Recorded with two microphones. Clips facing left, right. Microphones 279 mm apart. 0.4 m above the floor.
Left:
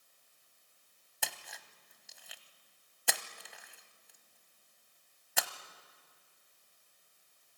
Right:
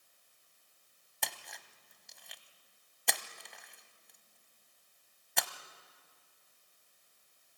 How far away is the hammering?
No hammering in this recording.